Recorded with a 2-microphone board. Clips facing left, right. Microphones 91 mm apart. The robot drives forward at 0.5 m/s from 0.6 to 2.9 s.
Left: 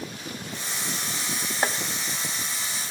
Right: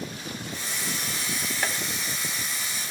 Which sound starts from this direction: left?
Chopping, at 1.6 s.